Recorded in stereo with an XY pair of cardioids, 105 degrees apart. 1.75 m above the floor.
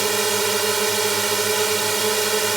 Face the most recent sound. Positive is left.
turn(degrees=-25)